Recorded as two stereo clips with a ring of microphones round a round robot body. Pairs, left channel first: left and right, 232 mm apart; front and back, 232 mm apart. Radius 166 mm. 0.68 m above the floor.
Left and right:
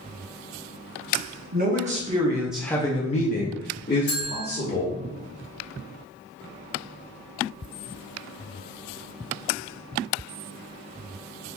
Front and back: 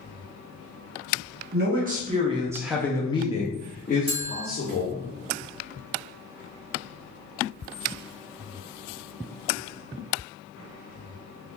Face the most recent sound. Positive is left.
turn(degrees=120)